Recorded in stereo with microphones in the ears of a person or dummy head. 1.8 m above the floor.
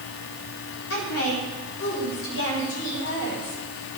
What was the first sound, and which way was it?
A woman speaking, 75° left (ahead or behind).